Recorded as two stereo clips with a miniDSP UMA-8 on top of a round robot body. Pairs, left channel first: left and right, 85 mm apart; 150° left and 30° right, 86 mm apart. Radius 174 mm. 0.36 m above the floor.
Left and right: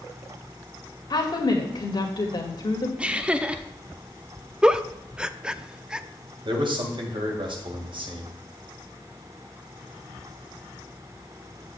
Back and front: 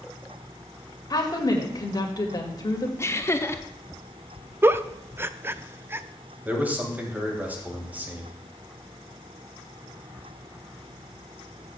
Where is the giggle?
25° right, 0.7 m.